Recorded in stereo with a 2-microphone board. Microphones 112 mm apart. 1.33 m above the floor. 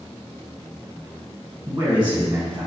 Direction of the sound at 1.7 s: 35° right (ahead or behind).